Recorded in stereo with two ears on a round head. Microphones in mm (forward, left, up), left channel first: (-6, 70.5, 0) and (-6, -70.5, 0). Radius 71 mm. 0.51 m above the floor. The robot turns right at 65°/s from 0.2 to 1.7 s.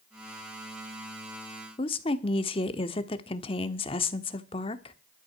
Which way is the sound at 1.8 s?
35° left (ahead or behind).